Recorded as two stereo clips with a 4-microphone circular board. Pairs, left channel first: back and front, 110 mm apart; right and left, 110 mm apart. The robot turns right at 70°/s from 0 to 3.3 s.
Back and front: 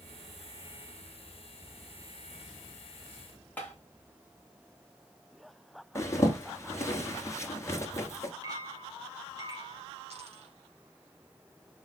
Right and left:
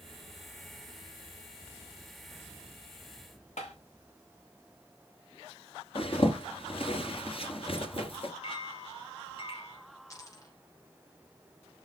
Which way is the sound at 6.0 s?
120° right.